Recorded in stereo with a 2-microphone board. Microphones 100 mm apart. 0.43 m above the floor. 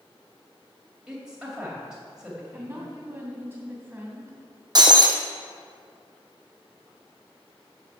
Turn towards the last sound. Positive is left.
turn(degrees=-50)  # may be behind; listen again after turning